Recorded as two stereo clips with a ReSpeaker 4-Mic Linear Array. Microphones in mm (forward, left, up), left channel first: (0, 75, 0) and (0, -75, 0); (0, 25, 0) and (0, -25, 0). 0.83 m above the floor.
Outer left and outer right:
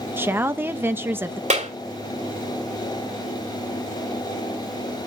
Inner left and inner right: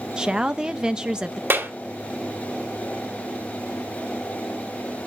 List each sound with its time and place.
0.2 s a woman speaking: 15° right (ahead or behind), 0.7 m
1.5 s a clap: 55° right (ahead or behind), 2.5 m